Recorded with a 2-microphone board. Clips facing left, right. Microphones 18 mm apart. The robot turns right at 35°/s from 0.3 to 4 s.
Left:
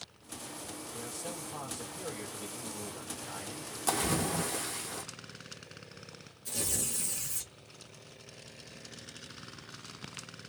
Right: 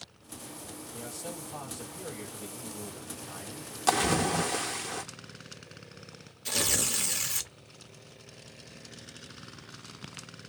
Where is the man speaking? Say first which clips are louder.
Right 2 dB; 40° right, 1.6 m; by 3.8 s 55° left, 1.6 m.